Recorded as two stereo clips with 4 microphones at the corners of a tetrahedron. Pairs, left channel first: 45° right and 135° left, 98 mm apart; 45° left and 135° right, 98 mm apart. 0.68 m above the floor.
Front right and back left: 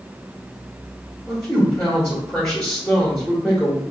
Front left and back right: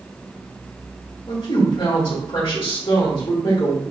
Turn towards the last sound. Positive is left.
turn(degrees=35)